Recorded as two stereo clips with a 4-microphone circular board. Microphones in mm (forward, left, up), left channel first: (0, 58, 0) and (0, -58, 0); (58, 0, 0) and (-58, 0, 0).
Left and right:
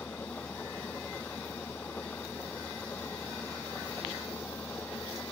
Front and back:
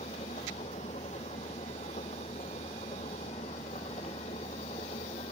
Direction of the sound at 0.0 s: 15° left.